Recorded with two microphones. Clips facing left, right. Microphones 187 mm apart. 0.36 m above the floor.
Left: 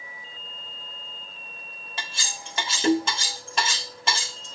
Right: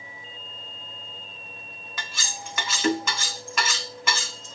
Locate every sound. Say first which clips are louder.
2.0 s cutlery clinking: even; 30° left (ahead or behind), 1.1 m